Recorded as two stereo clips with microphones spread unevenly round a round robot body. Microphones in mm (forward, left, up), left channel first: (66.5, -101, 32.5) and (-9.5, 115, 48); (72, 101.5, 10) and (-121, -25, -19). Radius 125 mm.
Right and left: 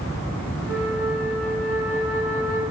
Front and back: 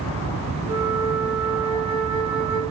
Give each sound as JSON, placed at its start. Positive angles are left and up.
{"t": 0.7, "sound": "a flute", "azimuth_deg": 20, "distance_m": 1.9}